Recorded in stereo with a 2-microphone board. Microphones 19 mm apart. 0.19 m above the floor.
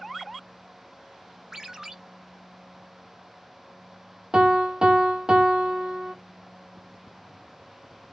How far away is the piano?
About 1.0 m.